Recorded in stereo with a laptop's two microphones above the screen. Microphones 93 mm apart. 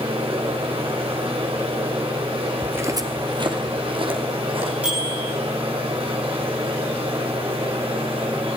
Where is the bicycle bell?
15° right (ahead or behind), 9 m.